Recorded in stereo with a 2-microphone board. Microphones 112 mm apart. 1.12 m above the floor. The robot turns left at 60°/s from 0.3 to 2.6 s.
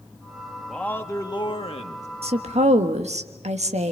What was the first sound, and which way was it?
A man speaking, 175° left.